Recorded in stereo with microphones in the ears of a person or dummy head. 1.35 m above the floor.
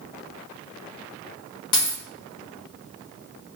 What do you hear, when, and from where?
1.7 s a dropped coin: 25° left (ahead or behind), 0.8 m